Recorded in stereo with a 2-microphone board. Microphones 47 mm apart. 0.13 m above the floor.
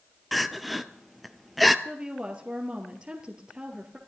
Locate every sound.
0.3 s crying: centre (ahead or behind), 0.6 m
1.9 s a woman speaking: 20° right (ahead or behind), 2 m